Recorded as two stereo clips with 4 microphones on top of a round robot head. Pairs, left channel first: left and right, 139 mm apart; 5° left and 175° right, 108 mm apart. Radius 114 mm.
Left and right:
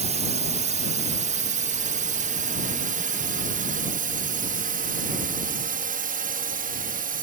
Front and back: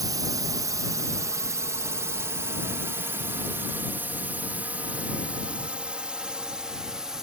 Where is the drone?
120° right; by 7.2 s 90° right.